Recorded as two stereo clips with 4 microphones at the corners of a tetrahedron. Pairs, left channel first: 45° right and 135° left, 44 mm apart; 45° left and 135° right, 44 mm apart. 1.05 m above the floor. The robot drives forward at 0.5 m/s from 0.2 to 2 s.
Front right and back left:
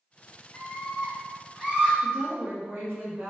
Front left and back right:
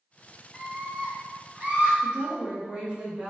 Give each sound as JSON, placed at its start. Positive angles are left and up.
{"t": 0.5, "sound": "a scream", "azimuth_deg": -35, "distance_m": 0.7}
{"t": 2.0, "sound": "a woman speaking", "azimuth_deg": 160, "distance_m": 1.2}